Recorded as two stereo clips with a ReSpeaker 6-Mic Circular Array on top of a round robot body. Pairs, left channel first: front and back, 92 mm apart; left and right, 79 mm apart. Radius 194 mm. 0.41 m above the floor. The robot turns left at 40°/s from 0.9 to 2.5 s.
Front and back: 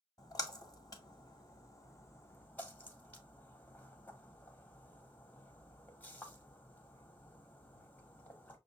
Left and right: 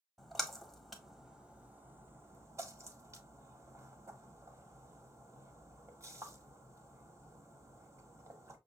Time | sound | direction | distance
0.2 | a splash | straight ahead | 1.6 m